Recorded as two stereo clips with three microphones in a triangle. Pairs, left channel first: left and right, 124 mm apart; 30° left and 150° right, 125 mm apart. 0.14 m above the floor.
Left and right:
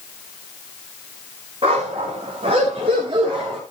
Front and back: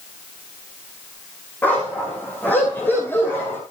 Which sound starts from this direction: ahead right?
A dog barking, at 1.6 s.